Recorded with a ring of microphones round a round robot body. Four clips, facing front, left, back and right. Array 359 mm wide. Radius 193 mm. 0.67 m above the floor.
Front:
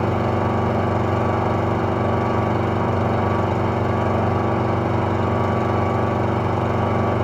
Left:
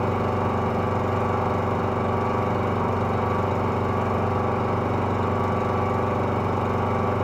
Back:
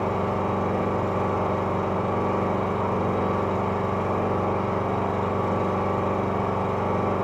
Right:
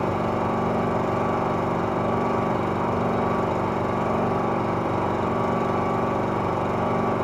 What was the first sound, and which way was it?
An engine running, 5° left.